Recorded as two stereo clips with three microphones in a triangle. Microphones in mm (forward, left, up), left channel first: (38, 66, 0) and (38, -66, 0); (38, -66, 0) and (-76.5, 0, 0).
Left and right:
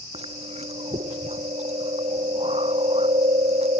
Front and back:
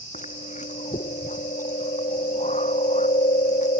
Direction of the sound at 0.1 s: 55° right.